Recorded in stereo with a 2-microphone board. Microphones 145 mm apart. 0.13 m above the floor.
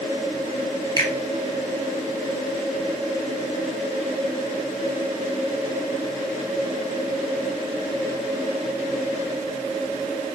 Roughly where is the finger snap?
Left.